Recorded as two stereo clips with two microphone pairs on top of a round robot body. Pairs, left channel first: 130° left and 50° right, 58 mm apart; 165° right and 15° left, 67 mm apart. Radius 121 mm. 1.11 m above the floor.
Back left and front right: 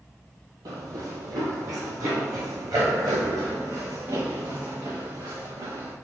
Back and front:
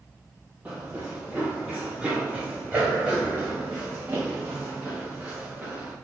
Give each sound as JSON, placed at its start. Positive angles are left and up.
{"t": 0.7, "sound": "running footsteps", "azimuth_deg": -45, "distance_m": 1.4}